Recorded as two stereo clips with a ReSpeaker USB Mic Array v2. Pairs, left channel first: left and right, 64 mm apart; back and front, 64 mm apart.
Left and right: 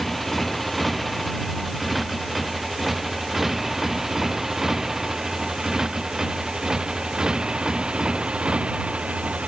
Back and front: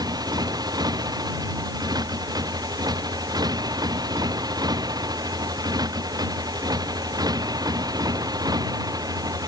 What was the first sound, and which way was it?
A motorcycle, straight ahead.